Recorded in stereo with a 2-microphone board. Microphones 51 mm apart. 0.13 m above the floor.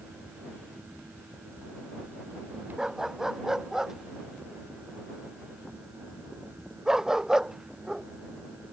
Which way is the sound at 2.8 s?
10° right (ahead or behind).